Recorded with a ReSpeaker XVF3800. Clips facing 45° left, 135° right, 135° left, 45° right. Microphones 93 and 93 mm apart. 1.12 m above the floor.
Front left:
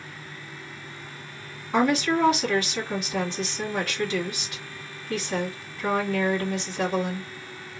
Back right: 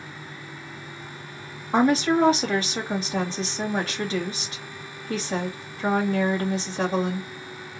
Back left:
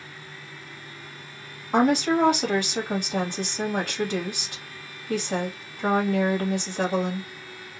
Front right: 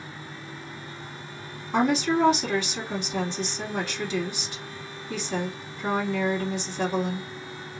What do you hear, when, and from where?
1.7 s a woman speaking: 170° left, 1.7 m